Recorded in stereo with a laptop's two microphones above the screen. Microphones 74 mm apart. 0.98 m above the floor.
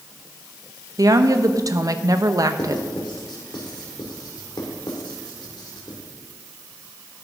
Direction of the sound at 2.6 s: 75° left (ahead or behind).